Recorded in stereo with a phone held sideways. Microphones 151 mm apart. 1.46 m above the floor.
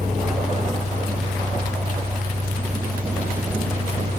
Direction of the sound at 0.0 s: 70° right (ahead or behind).